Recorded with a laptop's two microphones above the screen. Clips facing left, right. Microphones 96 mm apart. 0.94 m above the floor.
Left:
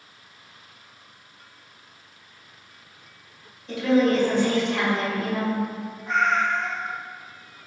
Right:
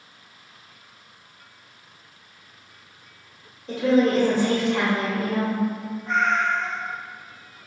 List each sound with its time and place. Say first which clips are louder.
3.7 s a woman speaking: right 1 dB; 40° right (ahead or behind), 1.0 m
6.1 s a cat meowing: even; centre (ahead or behind), 0.7 m